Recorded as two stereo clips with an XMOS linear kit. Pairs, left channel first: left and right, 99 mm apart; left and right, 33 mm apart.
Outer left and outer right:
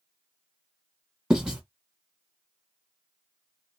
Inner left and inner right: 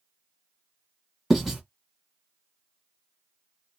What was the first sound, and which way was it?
Writing, 10° right (ahead or behind).